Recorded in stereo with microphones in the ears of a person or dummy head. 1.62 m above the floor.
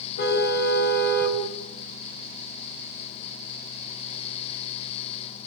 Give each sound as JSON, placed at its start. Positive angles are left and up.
{"t": 0.2, "sound": "a car horn", "side_deg": 80, "distance_m": 7.5}